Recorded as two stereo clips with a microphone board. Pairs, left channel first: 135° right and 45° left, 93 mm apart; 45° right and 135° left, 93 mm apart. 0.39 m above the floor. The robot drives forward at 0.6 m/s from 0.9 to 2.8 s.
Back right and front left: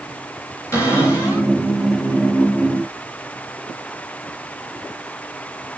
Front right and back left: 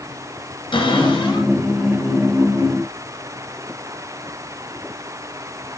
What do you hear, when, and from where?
0.7 s a cupboard door: 75° right, 8 m; by 1.5 s 80° right, 8 m